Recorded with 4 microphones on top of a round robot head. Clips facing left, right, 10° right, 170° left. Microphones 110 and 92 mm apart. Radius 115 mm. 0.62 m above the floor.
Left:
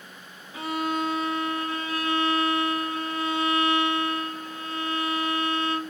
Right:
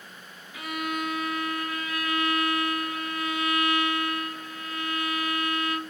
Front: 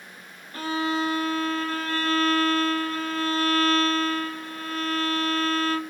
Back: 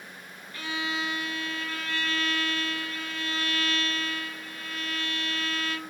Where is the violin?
35° left, 1.0 m.